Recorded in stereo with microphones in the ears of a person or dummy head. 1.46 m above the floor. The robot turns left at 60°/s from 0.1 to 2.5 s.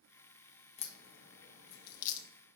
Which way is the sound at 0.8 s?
45° left (ahead or behind).